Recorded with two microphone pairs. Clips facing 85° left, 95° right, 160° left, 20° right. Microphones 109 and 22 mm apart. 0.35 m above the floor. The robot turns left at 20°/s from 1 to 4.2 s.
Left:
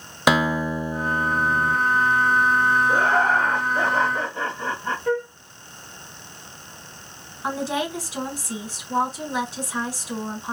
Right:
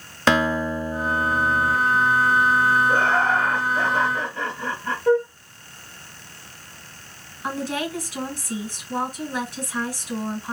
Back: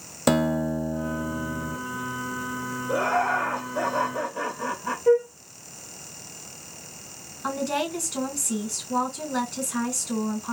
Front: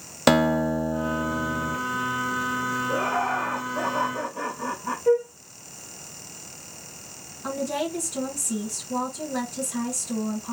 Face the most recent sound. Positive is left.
turn(degrees=145)